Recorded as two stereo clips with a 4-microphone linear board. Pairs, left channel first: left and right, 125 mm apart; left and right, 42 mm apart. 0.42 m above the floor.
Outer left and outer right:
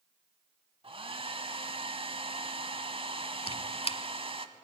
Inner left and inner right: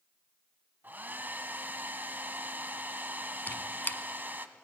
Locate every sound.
0.8 s a hair dryer: 45° right (ahead or behind), 1.0 m
3.5 s a squeak: 50° left (ahead or behind), 0.9 m